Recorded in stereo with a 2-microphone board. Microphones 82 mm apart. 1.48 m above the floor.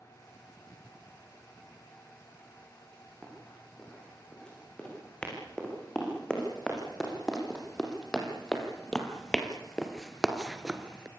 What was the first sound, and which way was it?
Running footsteps, 10° left (ahead or behind).